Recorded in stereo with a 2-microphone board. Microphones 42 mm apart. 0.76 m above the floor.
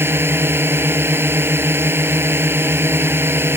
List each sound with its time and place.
0.0 s a drone: 60° right (ahead or behind)